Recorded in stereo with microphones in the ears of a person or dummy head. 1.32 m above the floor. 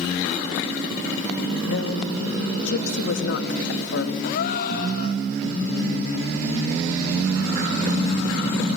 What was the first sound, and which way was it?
A woman speaking, 65° left (ahead or behind).